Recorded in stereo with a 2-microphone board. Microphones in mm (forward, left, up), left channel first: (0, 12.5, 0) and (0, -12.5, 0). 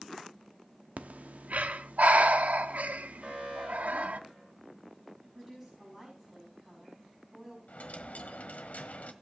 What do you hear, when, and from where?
1.0 s breathing: 80° right, 0.9 m
3.2 s an alarm: 35° right (ahead or behind), 10 m
5.2 s a woman speaking: 10° right (ahead or behind), 6 m
7.7 s a dropped coin: 75° left (ahead or behind), 1.4 m